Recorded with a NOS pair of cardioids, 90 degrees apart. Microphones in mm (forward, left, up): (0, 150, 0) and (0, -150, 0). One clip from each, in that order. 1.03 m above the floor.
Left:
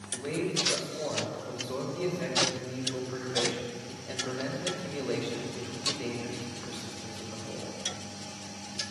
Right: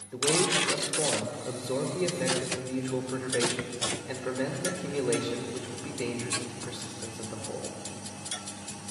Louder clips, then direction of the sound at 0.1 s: Right 6 dB; 50° right.